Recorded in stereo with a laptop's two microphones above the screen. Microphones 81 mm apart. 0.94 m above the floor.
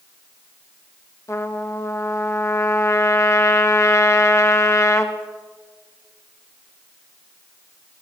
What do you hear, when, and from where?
1.3 s a trumpet: 35° left (ahead or behind), 0.6 m